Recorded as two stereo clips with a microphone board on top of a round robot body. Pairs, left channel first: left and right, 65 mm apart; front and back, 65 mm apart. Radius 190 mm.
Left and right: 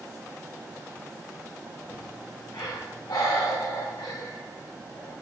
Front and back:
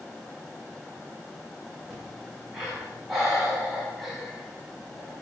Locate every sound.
1.9 s breathing: 95° left, 6.5 m